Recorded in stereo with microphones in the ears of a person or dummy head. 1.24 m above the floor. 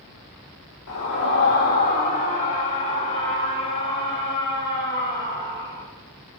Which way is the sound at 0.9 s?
70° left (ahead or behind).